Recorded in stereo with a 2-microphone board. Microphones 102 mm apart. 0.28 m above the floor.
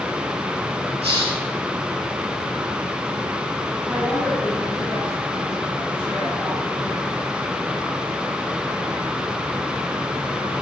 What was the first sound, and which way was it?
A hiss, 75° right (ahead or behind).